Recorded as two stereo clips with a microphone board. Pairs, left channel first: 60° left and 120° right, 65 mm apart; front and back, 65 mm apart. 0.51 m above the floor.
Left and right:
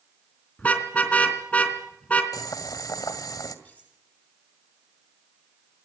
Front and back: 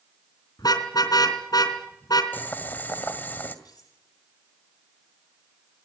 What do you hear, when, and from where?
0.6 s a car horn: 5° right, 3 m
2.3 s boiling: 60° left, 2 m
3.6 s cutlery clinking: 10° right, 9 m